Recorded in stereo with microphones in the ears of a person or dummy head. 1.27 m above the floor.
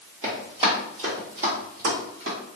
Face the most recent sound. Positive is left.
turn(degrees=-55)  # may be behind; listen again after turning